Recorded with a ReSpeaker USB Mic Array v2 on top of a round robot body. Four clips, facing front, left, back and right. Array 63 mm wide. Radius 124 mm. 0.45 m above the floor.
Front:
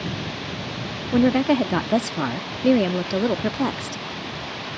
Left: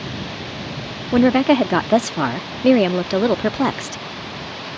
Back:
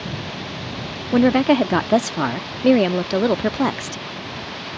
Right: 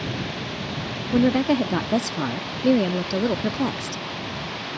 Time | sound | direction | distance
1.1 | a woman speaking | 125° left | ?